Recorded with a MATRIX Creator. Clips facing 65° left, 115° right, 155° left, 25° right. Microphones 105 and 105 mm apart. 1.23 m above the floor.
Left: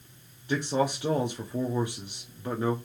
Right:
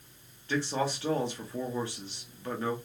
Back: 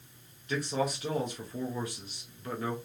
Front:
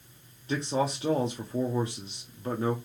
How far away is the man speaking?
About 0.6 m.